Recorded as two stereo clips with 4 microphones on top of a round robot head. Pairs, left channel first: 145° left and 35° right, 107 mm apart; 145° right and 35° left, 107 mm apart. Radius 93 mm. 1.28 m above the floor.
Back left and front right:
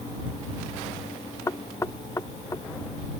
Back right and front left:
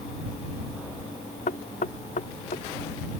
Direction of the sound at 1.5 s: 150° right.